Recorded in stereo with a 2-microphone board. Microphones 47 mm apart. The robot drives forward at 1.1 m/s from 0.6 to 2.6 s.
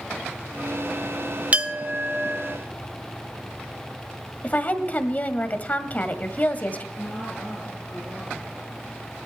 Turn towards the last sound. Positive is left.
turn(degrees=25)  # may be behind; listen again after turning